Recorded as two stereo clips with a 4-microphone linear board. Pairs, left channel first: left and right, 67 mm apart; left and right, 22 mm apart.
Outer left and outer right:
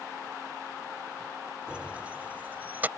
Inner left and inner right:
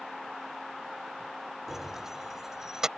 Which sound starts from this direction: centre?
Keys jangling, at 1.7 s.